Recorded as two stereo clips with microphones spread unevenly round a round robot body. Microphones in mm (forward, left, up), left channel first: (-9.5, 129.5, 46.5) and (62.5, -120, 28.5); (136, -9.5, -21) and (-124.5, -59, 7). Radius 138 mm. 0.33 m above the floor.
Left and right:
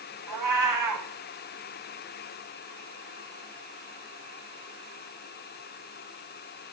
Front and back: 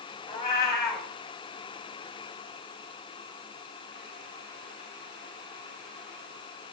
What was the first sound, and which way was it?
A cat meowing, 65° right.